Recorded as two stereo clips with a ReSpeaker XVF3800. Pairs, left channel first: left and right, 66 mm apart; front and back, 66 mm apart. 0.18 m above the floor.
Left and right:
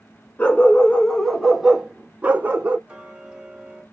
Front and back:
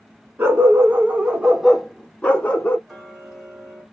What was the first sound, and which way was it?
A dog barking, 150° left.